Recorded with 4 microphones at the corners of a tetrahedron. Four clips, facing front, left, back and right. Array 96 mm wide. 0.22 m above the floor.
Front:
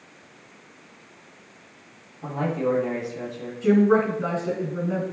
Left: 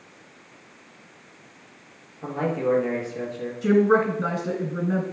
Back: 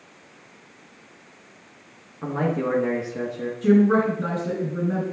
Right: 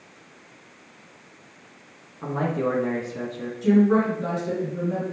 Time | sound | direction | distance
2.2 | a man speaking | 155° right | 3.5 m
3.6 | a woman speaking | 110° left | 3.5 m